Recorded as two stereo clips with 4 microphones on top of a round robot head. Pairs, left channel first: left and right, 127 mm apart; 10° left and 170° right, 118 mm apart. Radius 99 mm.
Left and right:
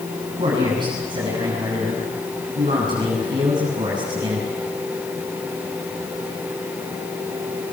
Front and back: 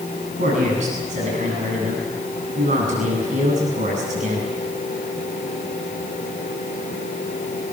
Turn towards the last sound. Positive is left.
turn(degrees=-150)